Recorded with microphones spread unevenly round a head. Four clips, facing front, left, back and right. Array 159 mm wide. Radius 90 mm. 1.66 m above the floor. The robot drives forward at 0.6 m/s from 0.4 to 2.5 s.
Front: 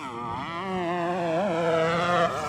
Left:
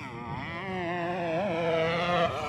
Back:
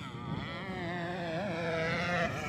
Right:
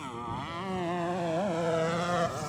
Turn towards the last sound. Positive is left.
turn(degrees=20)